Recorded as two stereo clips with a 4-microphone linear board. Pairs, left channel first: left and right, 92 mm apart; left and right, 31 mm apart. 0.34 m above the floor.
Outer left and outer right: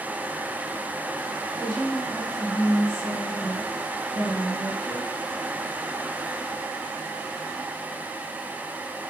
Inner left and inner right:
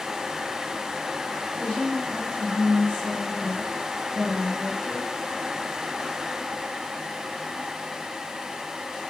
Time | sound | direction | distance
1.6 | a woman speaking | 55° left (ahead or behind) | 3 m